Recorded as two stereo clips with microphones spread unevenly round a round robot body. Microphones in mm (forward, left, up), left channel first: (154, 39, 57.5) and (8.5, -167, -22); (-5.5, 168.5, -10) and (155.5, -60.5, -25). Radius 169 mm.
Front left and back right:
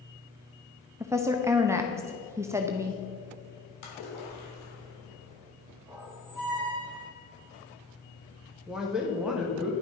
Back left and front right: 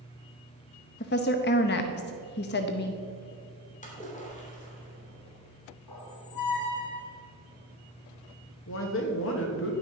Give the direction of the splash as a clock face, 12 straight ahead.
10 o'clock.